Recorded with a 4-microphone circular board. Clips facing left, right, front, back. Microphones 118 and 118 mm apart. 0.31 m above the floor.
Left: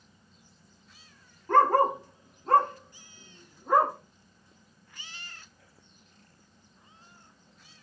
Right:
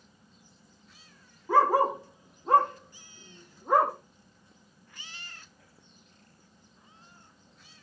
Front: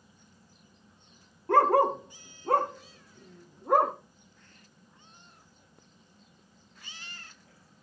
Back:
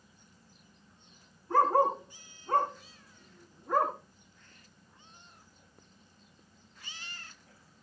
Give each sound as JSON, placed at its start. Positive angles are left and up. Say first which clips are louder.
{"t": 1.5, "sound": "a dog barking", "louder": "left 1 dB, front 3 dB", "azimuth_deg": -5, "distance_m": 2.5}